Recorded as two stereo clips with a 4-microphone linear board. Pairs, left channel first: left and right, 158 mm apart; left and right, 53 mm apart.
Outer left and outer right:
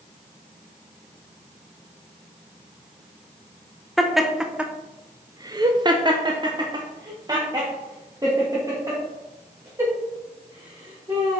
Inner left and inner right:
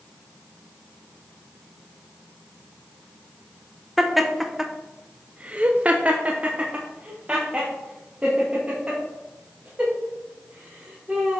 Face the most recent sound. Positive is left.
turn(degrees=-20)  # may be behind; listen again after turning